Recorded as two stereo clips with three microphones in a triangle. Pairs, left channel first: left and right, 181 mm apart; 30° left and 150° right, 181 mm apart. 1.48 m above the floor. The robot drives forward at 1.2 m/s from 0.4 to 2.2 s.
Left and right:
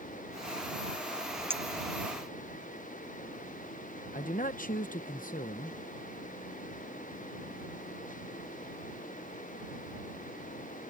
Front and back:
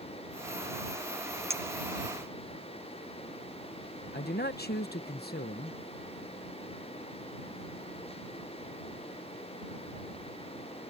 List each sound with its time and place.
1.5 s a clink: 125° right; by 1.6 s 135° right
4.1 s a man speaking: 55° left